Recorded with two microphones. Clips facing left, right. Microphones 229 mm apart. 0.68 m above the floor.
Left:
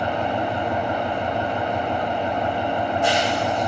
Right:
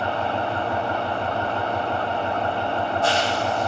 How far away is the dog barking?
No dog barking in this recording.